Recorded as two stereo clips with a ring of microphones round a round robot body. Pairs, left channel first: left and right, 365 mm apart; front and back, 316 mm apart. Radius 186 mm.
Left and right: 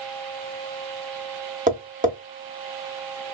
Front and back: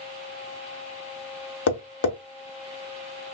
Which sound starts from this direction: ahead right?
Tapping, at 1.7 s.